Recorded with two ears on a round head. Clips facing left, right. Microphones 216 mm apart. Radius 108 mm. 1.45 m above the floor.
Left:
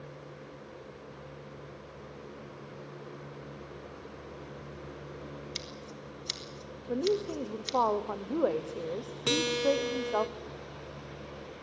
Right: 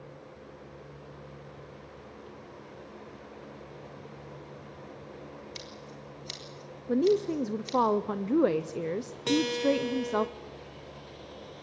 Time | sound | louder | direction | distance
5.5 | scissors | left 1 dB | 25° left (ahead or behind) | 3 m
6.9 | a woman speaking | right 5 dB | 35° right (ahead or behind) | 0.6 m
9.3 | a guitar | right 2 dB | 15° left (ahead or behind) | 1.5 m